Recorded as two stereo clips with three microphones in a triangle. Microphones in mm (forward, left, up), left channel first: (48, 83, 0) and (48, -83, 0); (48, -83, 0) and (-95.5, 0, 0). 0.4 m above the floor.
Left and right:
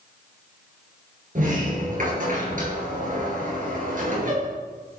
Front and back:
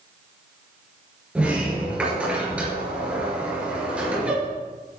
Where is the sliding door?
125° right, 3.5 m.